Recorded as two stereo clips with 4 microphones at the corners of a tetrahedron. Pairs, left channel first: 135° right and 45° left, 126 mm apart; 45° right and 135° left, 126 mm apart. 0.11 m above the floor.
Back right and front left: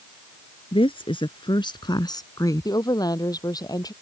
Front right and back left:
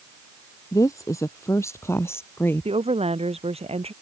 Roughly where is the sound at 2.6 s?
Behind.